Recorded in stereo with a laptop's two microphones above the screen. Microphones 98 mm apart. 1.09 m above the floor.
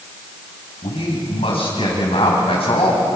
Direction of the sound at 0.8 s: 70° left (ahead or behind).